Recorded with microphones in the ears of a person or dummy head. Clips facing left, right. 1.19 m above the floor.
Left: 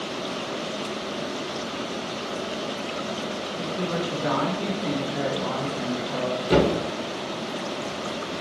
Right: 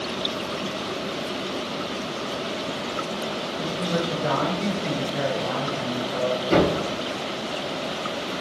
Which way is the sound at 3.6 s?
65° left (ahead or behind).